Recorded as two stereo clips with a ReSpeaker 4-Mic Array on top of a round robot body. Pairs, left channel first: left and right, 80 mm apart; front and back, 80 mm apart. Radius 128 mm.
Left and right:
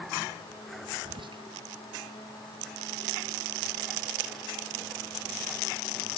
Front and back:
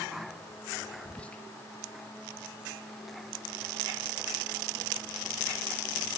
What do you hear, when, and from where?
1.1 s whispering: 75° right, 1.0 m